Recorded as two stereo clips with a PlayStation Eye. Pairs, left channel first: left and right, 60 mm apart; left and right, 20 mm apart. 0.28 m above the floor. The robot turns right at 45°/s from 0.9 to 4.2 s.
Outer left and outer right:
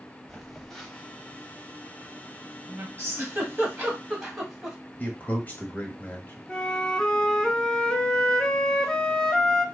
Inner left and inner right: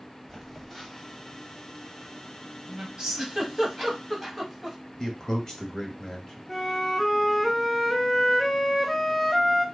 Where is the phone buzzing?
5° left (ahead or behind), 0.8 m; by 2.9 s 45° right (ahead or behind), 0.8 m.